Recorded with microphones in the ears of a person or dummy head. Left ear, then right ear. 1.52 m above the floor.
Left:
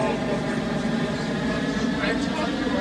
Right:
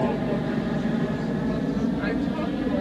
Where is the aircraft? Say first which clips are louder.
Left 1 dB; 55° left (ahead or behind); by 2.8 s 50° left (ahead or behind).